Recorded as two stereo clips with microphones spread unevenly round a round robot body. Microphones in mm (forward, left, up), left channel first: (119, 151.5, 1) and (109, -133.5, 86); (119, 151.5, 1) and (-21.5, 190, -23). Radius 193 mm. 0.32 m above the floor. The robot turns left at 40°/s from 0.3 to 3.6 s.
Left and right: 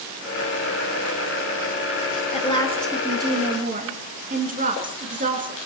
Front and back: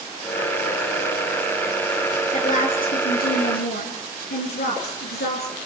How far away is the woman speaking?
About 4.5 m.